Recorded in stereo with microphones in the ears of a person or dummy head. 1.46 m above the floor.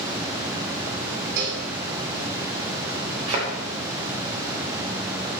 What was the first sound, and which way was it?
A cowbell, 65° right (ahead or behind).